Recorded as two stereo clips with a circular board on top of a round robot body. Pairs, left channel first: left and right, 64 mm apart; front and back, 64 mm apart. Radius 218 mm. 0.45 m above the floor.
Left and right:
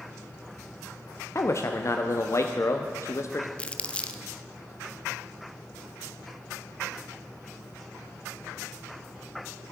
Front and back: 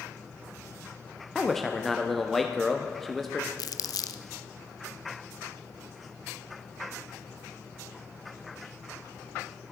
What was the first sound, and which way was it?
A man speaking, 85° left.